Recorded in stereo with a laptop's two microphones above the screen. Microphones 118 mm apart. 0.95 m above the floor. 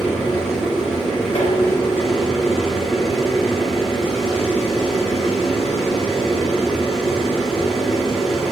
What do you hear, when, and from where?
0.0 s a machine running: centre (ahead or behind), 1.8 m
1.4 s dishes clattering: 65° left (ahead or behind), 2.5 m